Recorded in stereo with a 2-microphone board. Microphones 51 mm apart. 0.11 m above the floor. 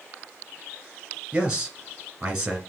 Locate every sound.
1.3 s a man speaking: 15° right (ahead or behind), 1.5 m